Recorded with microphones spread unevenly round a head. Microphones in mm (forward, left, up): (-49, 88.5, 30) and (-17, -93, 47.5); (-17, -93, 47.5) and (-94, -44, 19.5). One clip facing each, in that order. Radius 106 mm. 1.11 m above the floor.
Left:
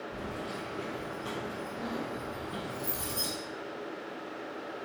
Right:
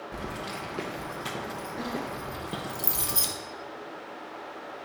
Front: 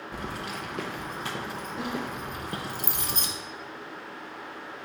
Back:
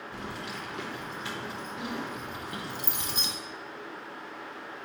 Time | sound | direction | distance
0.1 | keys jangling | 75° right | 0.6 m